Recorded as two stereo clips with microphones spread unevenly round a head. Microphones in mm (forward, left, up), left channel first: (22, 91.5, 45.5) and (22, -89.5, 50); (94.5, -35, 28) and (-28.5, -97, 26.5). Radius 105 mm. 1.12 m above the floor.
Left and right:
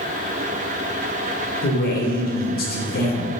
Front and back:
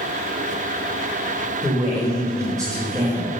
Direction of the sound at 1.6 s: 135° left.